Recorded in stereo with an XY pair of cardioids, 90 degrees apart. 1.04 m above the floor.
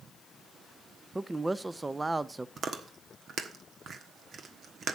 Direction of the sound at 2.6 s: 55° right.